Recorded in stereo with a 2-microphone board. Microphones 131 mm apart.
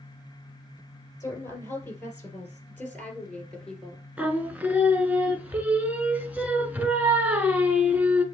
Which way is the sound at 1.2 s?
25° left (ahead or behind).